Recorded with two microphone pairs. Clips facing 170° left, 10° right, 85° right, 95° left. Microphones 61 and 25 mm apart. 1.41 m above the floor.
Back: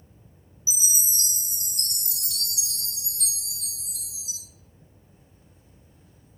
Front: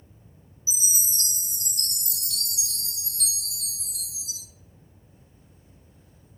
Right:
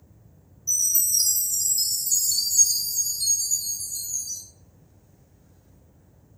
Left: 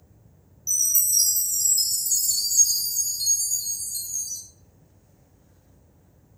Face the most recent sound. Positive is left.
turn(degrees=90)